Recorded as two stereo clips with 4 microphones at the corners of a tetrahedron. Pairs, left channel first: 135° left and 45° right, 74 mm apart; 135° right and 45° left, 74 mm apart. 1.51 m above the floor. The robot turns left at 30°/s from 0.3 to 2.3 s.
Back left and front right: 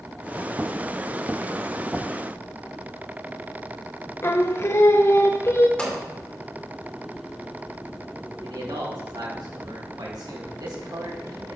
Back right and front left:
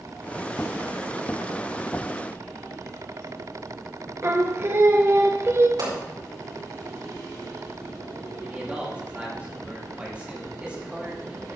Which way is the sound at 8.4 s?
25° right.